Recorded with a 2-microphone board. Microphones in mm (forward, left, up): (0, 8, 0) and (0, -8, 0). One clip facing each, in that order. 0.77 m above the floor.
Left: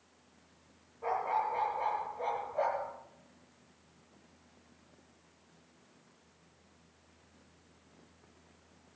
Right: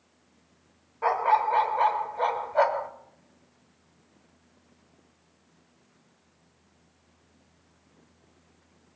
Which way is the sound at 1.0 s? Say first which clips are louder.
Right 9 dB; 65° right (ahead or behind).